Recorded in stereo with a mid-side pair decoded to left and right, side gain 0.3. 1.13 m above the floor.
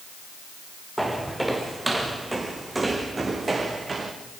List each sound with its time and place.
1.0 s footsteps: 10° right, 4.5 m; by 4.1 s 45° right, 4 m